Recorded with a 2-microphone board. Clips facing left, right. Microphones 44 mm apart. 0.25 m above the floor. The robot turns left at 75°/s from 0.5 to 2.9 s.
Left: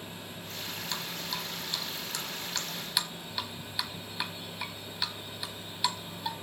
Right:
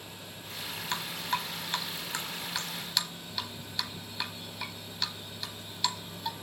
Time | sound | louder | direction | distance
0.9 | dripping | right 6 dB | 30° right (ahead or behind) | 1.1 m